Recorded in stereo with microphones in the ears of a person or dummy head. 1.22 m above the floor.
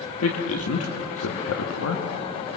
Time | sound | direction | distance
0.2 | a man speaking | 75° left (ahead or behind) | 1.8 m